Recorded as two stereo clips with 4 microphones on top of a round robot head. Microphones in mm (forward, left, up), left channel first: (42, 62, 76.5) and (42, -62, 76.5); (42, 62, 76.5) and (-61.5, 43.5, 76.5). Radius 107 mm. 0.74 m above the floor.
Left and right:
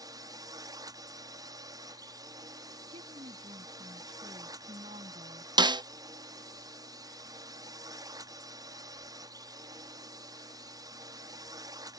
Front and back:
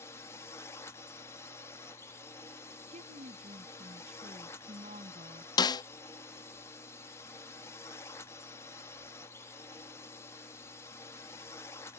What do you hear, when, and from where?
0.0 s a drone: 45° right
2.9 s a woman speaking: 145° right
5.6 s a snare drum: 40° right